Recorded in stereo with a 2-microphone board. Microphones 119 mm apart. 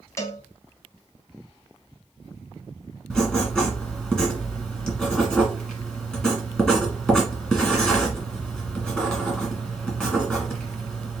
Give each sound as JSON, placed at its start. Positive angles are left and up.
{"t": 0.2, "sound": "a cowbell", "side_deg": 25, "distance_m": 0.8}
{"t": 3.1, "sound": "writing", "side_deg": 5, "distance_m": 1.7}